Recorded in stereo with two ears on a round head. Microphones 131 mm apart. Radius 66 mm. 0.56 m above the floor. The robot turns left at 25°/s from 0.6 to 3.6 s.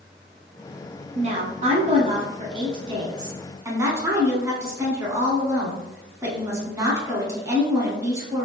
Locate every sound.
1.1 s a woman speaking: 85° right, 1.1 m; by 8.4 s 145° right, 1.1 m